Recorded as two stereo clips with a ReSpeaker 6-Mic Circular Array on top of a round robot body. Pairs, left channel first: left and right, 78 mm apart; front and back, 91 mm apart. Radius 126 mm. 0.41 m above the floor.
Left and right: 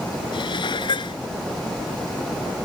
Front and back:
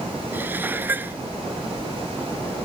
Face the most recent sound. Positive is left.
turn(degrees=110)